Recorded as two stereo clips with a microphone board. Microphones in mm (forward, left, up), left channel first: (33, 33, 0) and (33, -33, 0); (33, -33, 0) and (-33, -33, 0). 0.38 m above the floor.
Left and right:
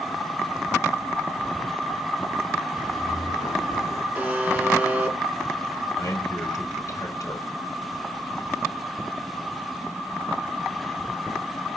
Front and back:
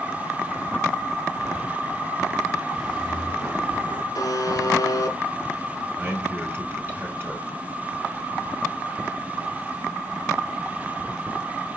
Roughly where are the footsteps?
Left.